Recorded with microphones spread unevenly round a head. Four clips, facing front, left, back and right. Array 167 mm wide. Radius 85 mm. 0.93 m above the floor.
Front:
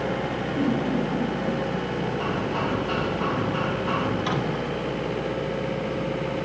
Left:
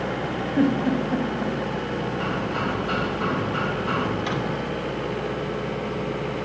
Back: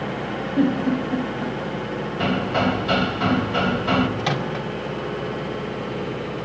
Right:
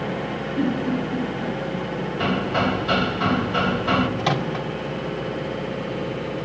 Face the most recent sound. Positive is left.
turn(degrees=-110)